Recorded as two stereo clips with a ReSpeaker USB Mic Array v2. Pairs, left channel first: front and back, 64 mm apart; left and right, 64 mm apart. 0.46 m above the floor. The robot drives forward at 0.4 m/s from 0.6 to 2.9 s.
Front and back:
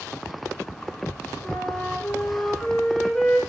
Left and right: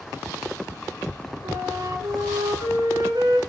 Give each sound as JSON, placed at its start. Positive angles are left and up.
{"t": 1.4, "sound": "a flute", "azimuth_deg": -70, "distance_m": 3.5}